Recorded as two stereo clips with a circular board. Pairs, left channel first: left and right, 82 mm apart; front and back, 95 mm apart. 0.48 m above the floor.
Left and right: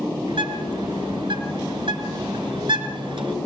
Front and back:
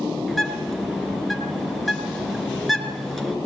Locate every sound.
0.3 s a bird: 90° right, 2.5 m